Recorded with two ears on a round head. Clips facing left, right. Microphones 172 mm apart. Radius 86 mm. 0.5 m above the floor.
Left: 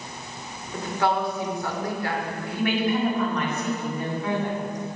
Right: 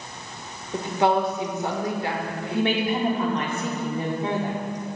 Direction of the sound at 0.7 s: 20° right (ahead or behind).